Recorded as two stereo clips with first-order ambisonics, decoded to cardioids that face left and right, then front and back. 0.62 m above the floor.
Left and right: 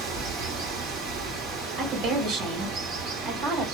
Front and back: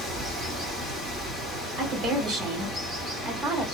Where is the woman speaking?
130° right, 1.8 m.